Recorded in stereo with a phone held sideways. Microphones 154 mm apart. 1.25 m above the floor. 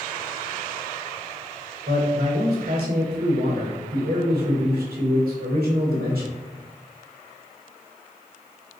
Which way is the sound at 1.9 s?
70° right (ahead or behind).